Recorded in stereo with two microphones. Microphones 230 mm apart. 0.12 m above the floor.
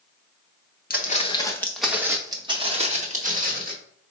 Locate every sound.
0.9 s footsteps: 40° left (ahead or behind), 0.9 m; by 3.7 s 35° right (ahead or behind), 2 m